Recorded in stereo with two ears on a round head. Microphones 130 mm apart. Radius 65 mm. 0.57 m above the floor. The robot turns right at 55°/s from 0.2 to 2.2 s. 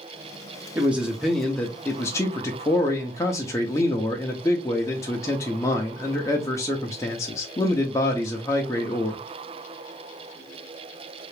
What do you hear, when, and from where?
0.8 s a man speaking: 15° right (ahead or behind), 0.6 m; by 9.2 s 20° left (ahead or behind), 0.6 m